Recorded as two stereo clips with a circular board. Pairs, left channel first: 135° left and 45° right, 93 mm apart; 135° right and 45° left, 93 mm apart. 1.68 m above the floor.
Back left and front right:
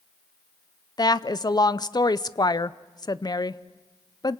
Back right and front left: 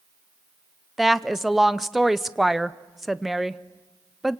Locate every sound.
1.0 s a woman speaking: 135° left, 0.6 m